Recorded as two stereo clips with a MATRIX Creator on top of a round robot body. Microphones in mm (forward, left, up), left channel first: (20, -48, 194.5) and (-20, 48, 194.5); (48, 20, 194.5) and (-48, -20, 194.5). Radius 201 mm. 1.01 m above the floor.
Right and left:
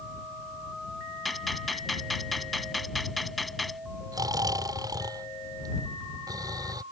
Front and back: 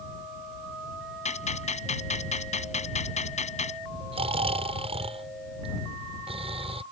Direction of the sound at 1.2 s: 20° left.